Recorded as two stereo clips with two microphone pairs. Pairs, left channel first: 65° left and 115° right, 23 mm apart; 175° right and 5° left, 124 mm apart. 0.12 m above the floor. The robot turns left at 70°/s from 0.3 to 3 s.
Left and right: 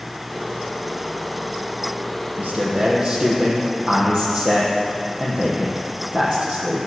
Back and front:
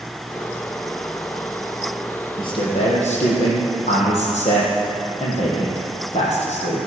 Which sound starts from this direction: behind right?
A man speaking, at 2.4 s.